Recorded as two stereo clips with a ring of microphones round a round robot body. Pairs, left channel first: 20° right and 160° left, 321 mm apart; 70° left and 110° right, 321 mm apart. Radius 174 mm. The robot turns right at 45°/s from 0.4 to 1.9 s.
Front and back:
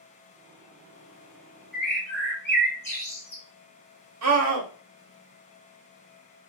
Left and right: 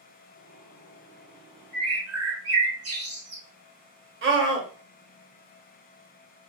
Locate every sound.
1.7 s a bird: 110° right, 1.4 m; by 3.4 s 100° right, 1.4 m
4.2 s a scream: 165° right, 1.0 m